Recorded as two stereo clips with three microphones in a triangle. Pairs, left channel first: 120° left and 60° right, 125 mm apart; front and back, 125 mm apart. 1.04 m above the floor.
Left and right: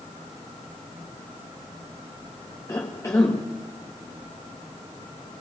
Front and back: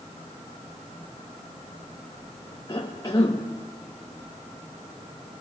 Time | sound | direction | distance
2.7 | a cough | 55° left | 1.3 m